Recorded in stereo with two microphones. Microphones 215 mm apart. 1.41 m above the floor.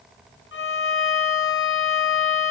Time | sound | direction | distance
0.5 | a violin | 70° left (ahead or behind) | 0.7 m